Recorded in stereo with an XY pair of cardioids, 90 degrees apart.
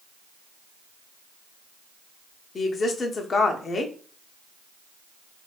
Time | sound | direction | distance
2.5 | a woman speaking | 45° left | 0.6 m